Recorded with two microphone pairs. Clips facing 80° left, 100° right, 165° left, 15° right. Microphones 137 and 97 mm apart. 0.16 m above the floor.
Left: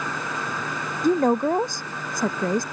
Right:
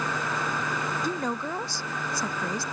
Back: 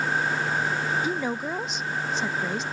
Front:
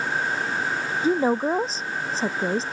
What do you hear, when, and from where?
1.0 s a woman speaking: 40° left